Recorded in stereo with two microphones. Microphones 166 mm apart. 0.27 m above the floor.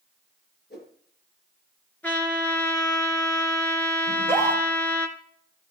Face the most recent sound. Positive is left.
turn(degrees=15)  # may be behind; listen again after turning